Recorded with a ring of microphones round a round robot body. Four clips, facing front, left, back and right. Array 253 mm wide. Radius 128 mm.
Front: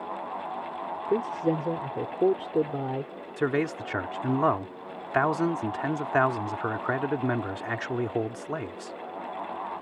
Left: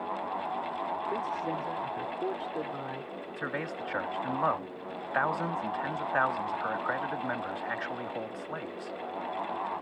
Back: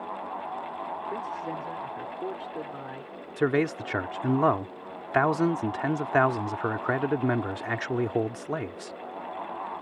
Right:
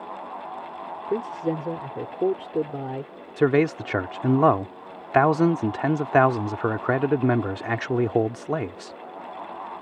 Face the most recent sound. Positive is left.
turn(degrees=-95)